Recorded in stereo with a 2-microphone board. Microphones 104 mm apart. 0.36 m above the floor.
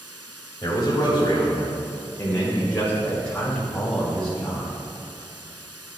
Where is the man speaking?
35° left (ahead or behind), 1.7 m; by 4.7 s centre (ahead or behind), 2.5 m.